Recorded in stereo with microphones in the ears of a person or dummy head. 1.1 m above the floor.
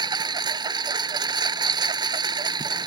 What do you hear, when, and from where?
0.0 s a lawn mower: 15° right (ahead or behind)